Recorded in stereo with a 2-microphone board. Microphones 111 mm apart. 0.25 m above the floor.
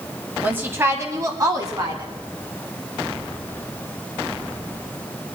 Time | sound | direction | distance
0.4 | a woman speaking | 15° right (ahead or behind) | 1.2 m